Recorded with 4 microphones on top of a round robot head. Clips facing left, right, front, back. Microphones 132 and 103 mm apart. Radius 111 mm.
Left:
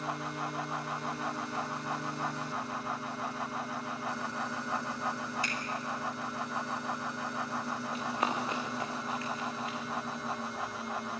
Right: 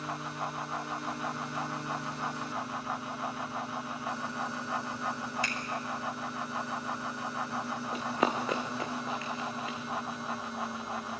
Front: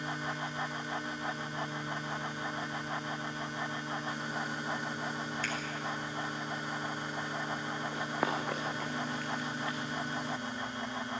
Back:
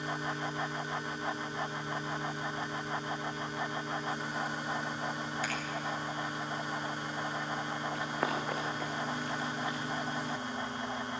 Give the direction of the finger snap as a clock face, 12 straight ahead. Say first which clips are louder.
Even, back 2 dB; 3 o'clock.